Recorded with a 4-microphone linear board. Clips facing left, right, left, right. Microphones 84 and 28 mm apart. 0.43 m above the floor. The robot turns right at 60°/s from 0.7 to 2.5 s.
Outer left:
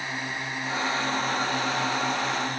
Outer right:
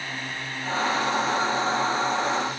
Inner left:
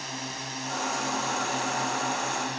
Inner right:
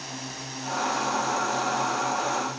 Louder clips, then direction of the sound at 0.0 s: Outer left 1 dB, inner left 2 dB; 15° left (ahead or behind).